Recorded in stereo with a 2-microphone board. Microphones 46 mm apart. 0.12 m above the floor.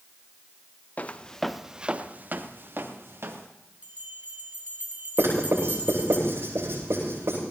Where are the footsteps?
35° left (ahead or behind), 1.1 m; by 3.5 s 65° right (ahead or behind), 2.5 m.